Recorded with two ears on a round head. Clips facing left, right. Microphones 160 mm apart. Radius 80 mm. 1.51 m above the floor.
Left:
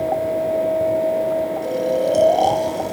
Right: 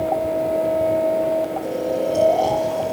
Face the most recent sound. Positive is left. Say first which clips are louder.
# left 3 dB
turn(degrees=65)  # may be behind; listen again after turning